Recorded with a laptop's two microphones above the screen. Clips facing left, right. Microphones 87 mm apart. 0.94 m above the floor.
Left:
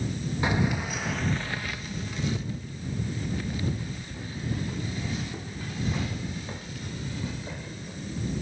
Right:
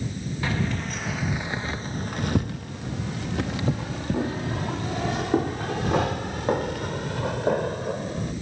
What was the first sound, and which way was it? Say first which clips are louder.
Keys jangling: left 1 dB; 20° left (ahead or behind).